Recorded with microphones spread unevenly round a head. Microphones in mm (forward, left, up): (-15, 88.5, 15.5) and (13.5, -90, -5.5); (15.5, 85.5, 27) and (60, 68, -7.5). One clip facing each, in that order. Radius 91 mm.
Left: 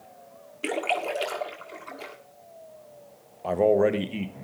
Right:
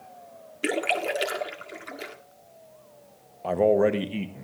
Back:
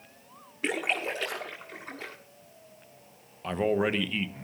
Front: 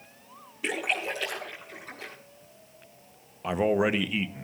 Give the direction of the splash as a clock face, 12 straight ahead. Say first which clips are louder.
Right 1 dB, even; 5 o'clock.